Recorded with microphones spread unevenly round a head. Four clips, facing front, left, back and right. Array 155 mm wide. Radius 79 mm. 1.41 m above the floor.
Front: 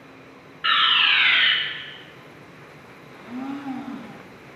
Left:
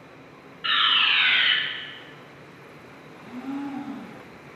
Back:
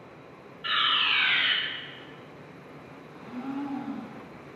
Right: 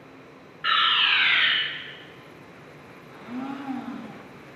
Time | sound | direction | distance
0.6 | a fire alarm | 15° right | 1.3 m
3.1 | a blender | 50° right | 1.1 m